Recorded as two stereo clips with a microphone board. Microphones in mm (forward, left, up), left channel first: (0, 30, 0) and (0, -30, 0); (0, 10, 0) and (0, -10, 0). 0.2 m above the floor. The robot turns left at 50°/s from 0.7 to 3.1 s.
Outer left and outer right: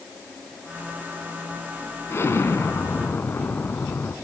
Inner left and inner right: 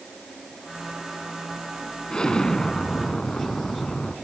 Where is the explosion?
110° left, 1.2 m; by 4.2 s 60° left, 1.2 m.